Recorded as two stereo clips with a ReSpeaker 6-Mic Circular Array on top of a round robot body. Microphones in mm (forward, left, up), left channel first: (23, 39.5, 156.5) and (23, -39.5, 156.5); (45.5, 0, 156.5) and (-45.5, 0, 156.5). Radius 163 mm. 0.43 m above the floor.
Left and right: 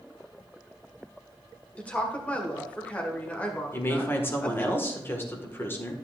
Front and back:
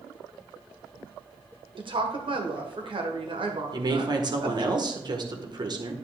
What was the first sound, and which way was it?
A woman speaking, 165° left.